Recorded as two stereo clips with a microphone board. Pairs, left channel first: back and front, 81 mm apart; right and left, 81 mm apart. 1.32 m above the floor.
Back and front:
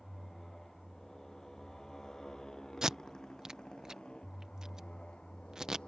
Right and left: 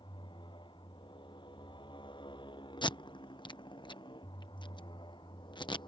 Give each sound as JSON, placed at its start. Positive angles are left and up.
{"t": 0.0, "sound": "a motorcycle", "azimuth_deg": -95}
{"t": 2.8, "sound": "tape being pulled", "azimuth_deg": -80}